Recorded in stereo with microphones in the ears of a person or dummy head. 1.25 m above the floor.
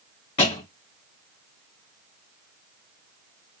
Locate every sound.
0.4 s a thud: 30° left (ahead or behind), 1.4 m